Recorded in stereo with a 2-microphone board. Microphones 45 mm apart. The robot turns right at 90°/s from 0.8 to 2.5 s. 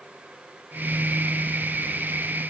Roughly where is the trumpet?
I don't hear a trumpet.